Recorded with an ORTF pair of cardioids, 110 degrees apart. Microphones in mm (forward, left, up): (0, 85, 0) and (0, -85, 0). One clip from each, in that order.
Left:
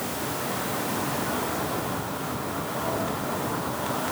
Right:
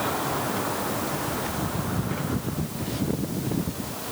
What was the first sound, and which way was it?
Only background noise.